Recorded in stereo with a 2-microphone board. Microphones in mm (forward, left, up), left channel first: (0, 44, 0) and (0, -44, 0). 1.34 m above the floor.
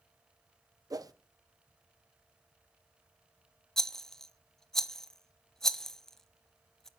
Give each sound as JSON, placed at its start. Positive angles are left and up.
{"t": 0.9, "sound": "a whoosh", "side_deg": -45, "distance_m": 0.8}
{"t": 3.8, "sound": "a rattle", "side_deg": 5, "distance_m": 0.6}